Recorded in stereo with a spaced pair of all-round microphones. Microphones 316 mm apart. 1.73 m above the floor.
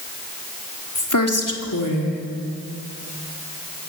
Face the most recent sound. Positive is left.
turn(degrees=75)  # may be behind; listen again after turning